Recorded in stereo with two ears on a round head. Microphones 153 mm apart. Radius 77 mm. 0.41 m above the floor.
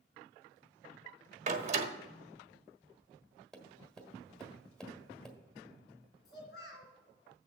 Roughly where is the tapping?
Centre.